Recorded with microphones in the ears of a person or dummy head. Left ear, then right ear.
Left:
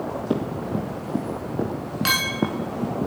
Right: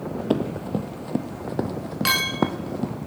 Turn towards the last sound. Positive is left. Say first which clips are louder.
# even
turn(degrees=-5)  # may be behind; listen again after turning